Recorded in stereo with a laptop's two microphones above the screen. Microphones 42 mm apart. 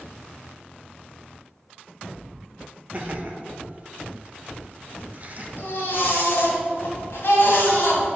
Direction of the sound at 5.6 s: 65° left (ahead or behind).